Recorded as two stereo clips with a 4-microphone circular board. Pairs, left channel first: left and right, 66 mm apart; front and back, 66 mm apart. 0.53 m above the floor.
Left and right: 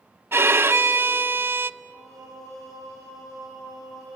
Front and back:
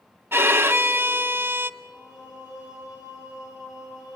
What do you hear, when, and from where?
0.3 s a violin: 135° right, 0.5 m
1.8 s singing: 110° left, 7 m